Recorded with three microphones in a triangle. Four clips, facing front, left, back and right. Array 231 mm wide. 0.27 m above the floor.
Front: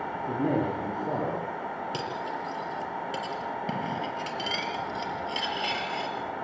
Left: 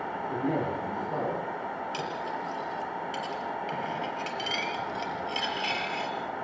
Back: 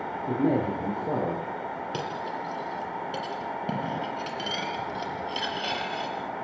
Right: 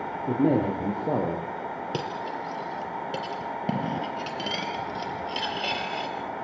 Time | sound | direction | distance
0.3 | a man speaking | 95° right | 7 m
1.9 | cutlery clinking | 90° right | 4 m